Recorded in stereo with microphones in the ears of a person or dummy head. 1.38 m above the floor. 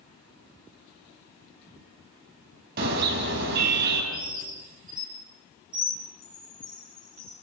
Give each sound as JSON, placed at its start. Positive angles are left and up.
{"t": 2.8, "sound": "a car horn", "side_deg": -55, "distance_m": 4.0}
{"t": 4.1, "sound": "a bird", "side_deg": -20, "distance_m": 1.5}
{"t": 6.2, "sound": "a chime", "side_deg": 5, "distance_m": 8.5}